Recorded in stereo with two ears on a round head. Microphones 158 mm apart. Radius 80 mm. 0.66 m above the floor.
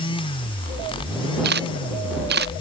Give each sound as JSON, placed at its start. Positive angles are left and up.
{"t": 1.4, "sound": "a camera shutter", "side_deg": -70}